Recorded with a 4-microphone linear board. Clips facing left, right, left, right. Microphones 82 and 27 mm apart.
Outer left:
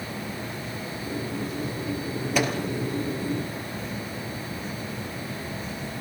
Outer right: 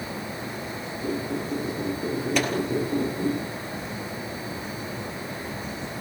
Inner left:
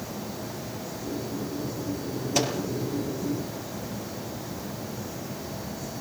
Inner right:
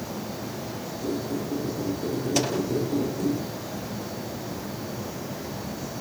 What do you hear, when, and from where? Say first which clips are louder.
1.0 s a squeak: outer right 4 dB, inner right 4 dB; 70° right (ahead or behind), 9 m
2.4 s a microwave: outer left 2 dB, inner left 1 dB; 5° left (ahead or behind), 4 m